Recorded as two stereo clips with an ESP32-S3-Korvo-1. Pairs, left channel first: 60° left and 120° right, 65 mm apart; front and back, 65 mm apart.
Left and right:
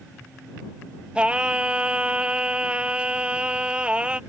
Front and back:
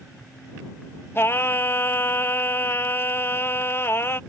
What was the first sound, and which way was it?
Singing, 50° right.